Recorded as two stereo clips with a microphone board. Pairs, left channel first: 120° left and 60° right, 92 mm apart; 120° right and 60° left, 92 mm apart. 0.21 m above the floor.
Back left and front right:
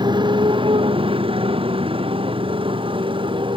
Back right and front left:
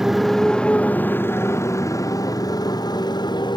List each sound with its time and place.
0.0 s a motorcycle: 25° right; by 3.6 s 85° right